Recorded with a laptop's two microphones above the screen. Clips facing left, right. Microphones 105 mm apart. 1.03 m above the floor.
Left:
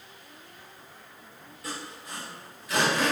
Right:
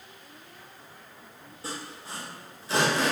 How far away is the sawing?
About 1.4 m.